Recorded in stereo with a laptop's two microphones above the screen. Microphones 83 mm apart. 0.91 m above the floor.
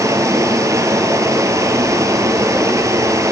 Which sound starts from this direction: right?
Running water, at 0.0 s.